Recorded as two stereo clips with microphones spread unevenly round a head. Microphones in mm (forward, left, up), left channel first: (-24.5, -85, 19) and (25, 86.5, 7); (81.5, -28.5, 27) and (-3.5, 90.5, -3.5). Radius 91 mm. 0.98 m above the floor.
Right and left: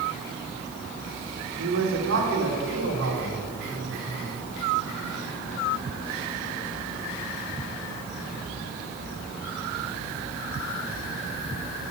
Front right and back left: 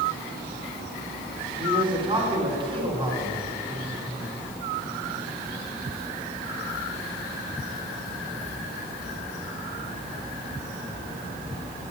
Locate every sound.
1.6 s a man speaking: 70° left, 3 m